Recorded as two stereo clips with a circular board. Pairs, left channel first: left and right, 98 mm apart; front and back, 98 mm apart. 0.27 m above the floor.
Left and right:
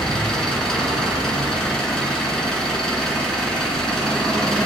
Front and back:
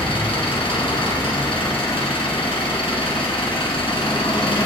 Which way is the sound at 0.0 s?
5° left.